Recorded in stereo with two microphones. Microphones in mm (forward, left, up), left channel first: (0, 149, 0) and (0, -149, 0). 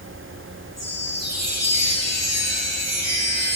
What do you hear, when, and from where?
0.8 s a chime: 60° left (ahead or behind), 10 m